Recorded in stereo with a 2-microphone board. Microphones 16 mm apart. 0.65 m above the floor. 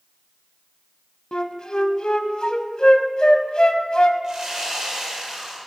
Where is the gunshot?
No gunshot in this recording.